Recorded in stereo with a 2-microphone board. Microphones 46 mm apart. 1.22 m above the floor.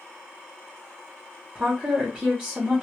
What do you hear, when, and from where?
1.6 s a woman speaking: 20° right (ahead or behind), 0.8 m